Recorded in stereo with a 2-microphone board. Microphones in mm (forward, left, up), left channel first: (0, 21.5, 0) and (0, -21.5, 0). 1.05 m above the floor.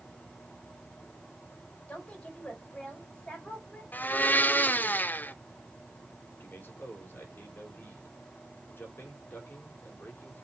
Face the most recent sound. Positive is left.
turn(degrees=55)  # may be behind; listen again after turning